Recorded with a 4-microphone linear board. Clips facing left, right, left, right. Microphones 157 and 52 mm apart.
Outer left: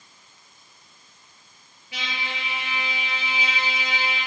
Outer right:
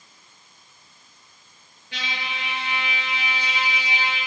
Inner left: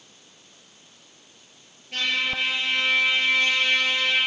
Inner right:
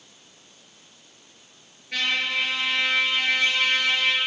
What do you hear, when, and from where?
1.9 s a trumpet: 70° right (ahead or behind), 6 m